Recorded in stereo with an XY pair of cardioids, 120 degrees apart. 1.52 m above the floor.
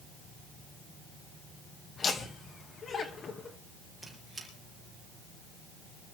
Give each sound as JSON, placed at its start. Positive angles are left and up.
{"t": 2.0, "sound": "laughter", "azimuth_deg": 40, "distance_m": 2.5}
{"t": 4.0, "sound": "a squeak", "azimuth_deg": -10, "distance_m": 6.0}